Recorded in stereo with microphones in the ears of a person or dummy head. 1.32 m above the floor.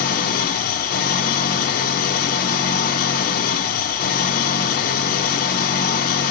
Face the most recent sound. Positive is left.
turn(degrees=50)  # may be behind; listen again after turning